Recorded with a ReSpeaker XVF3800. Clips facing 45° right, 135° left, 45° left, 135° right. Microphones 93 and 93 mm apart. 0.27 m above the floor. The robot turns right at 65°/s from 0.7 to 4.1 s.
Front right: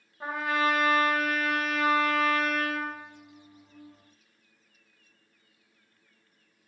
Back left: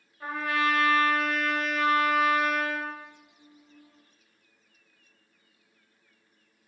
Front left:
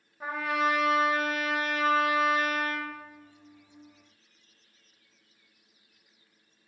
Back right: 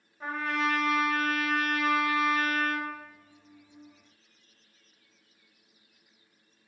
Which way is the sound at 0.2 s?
25° right.